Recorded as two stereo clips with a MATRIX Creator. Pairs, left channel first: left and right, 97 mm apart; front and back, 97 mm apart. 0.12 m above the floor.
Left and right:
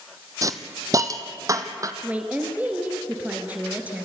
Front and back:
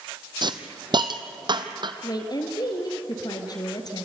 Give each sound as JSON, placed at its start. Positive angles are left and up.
{"t": 0.4, "sound": "a hiss", "azimuth_deg": -145, "distance_m": 1.2}
{"t": 2.0, "sound": "a woman speaking", "azimuth_deg": -20, "distance_m": 2.0}